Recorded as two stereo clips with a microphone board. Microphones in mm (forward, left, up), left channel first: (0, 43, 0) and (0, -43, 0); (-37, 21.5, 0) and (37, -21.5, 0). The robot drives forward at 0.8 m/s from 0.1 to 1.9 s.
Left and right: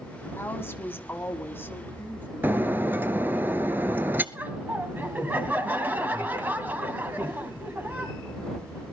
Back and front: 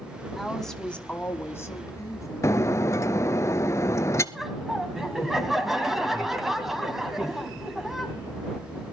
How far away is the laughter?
About 1.4 m.